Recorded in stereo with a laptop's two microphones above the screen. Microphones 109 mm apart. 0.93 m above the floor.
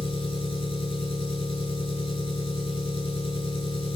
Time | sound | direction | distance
0.0 | an engine running | 65° left (ahead or behind) | 4 m